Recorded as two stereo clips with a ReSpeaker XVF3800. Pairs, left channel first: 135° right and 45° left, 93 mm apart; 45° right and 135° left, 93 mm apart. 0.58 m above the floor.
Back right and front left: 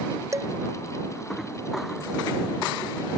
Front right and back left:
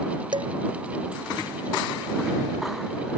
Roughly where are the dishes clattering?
Left.